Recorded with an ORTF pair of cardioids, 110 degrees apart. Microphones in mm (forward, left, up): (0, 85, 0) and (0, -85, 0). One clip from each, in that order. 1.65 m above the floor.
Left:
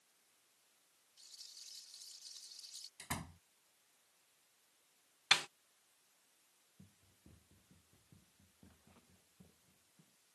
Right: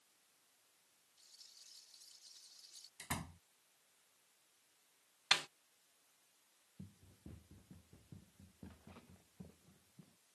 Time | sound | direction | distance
1.2 | a rattle | 35° left | ?
3.0 | a door slam | 5° right | ?
5.3 | a snare drum | 15° left | ?
6.8 | running footsteps | 50° right | ?